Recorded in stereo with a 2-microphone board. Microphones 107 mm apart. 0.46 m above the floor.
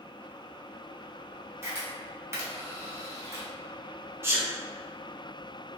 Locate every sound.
1.6 s a camera shutter: 25° right (ahead or behind), 0.9 m
4.2 s a sneeze: 25° right (ahead or behind), 0.8 m